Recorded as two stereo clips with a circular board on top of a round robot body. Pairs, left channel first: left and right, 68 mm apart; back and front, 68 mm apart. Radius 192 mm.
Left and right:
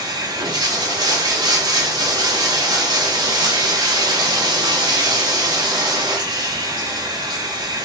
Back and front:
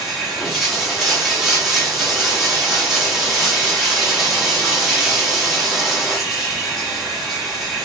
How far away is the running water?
About 2 m.